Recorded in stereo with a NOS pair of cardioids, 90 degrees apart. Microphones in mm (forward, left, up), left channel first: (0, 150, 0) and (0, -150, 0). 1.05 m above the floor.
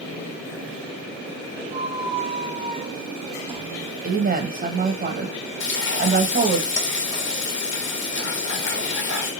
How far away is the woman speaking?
About 0.8 m.